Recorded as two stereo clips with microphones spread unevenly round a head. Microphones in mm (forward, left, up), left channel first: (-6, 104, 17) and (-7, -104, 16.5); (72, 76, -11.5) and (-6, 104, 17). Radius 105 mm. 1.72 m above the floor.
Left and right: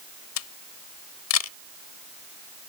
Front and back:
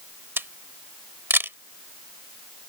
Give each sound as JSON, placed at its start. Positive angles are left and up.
{"t": 0.4, "sound": "a camera shutter", "azimuth_deg": 105}